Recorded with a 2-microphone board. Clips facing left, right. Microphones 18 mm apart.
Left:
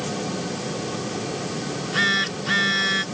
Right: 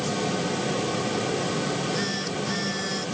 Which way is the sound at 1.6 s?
60° left (ahead or behind).